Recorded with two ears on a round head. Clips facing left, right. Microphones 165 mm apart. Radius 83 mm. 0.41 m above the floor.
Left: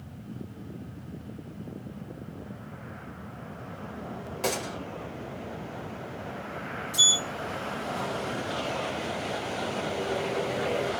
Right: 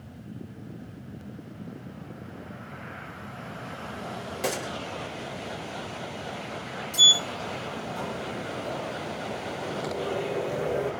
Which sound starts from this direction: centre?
A gunshot, at 4.4 s.